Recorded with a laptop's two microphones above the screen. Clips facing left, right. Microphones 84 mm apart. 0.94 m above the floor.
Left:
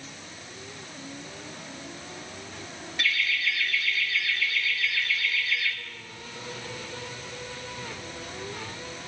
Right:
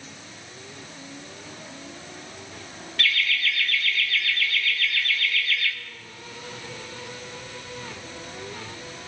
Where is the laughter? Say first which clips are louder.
Right 2 dB; 15° left (ahead or behind), 0.8 m.